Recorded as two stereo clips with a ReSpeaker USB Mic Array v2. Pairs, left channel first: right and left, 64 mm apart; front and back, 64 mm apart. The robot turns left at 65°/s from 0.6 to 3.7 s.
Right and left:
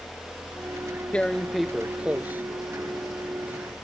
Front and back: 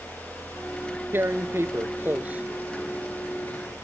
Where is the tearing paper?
150° right; by 3.7 s 40° left.